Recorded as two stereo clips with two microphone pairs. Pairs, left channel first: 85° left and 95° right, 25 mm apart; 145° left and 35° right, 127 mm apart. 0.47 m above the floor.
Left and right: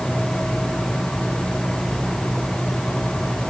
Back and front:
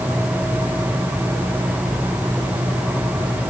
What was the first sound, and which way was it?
Only background noise.